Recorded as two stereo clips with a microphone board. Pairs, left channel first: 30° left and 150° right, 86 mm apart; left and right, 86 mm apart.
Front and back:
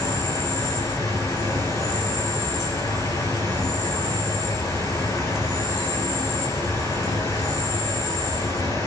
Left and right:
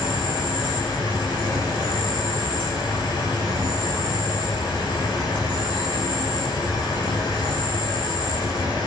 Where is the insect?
75° left, 5.5 m.